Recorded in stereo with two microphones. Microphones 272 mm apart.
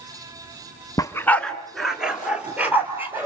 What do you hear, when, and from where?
1.0 s a dog barking: 15° left (ahead or behind), 1.1 m; by 3.2 s 10° right (ahead or behind), 4 m